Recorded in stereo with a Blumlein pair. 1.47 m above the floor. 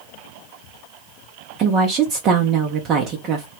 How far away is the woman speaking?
About 0.6 m.